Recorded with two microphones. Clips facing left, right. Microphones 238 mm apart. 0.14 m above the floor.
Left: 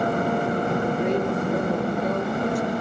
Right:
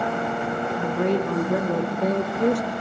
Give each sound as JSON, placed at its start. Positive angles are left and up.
{"t": 0.8, "sound": "a woman speaking", "side_deg": -60, "distance_m": 8.5}